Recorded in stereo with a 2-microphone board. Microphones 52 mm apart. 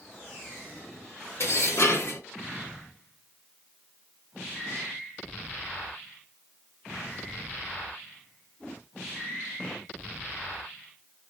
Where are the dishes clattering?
60° left (ahead or behind), 0.9 m.